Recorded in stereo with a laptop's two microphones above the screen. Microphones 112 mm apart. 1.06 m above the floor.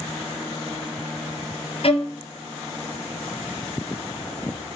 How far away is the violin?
About 0.6 m.